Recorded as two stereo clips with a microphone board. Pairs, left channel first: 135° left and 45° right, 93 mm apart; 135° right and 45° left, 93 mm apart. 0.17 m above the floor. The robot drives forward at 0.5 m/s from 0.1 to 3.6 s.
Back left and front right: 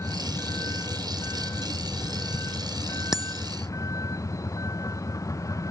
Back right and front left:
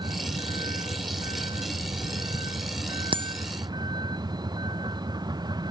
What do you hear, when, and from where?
0.0 s a vehicle: 75° left; by 5.7 s 85° left
3.1 s a bicycle bell: 40° left